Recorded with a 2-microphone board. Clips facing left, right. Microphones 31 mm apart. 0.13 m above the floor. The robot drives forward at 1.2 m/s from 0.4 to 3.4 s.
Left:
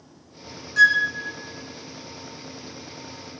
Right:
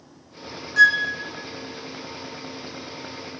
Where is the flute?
10° right (ahead or behind), 0.7 m; by 1.1 s 5° right (ahead or behind), 0.9 m.